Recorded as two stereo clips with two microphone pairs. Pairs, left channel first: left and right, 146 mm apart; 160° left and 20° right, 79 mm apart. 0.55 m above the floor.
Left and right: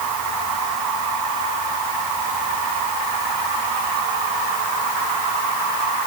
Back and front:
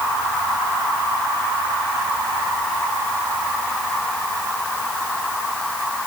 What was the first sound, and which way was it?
Only background noise.